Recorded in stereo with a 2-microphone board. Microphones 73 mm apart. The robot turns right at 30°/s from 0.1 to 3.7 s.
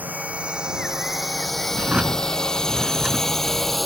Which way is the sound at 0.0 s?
20° right (ahead or behind).